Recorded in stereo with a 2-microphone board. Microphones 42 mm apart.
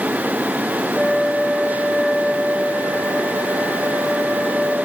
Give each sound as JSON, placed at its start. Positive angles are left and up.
{"t": 0.9, "sound": "a flute", "side_deg": 25, "distance_m": 7.0}